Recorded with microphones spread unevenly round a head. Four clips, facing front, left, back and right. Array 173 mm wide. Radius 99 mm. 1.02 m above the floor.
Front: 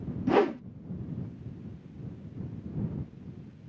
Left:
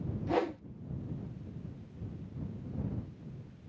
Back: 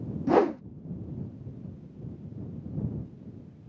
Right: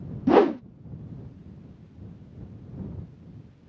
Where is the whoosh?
75° right.